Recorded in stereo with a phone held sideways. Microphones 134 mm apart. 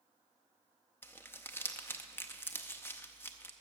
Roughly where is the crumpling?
Centre.